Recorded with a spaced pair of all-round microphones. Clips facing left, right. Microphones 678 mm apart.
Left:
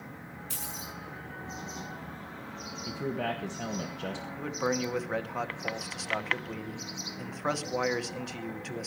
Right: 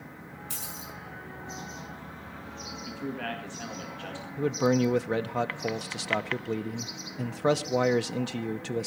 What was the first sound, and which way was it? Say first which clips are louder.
A dropped coin: even; 10° left (ahead or behind).